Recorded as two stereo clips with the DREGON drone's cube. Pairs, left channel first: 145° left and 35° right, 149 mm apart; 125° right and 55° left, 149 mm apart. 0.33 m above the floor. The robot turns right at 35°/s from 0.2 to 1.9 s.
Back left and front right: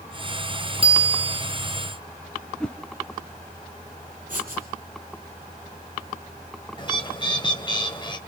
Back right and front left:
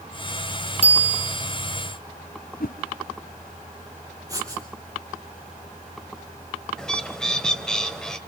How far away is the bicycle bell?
About 2 m.